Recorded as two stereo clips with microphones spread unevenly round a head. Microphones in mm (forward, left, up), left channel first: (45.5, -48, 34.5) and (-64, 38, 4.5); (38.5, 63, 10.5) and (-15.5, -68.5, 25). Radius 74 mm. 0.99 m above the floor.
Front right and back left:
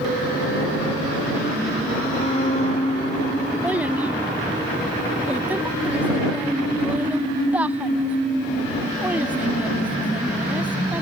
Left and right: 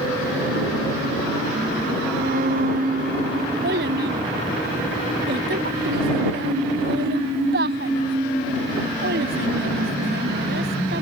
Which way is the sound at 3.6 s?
135° right.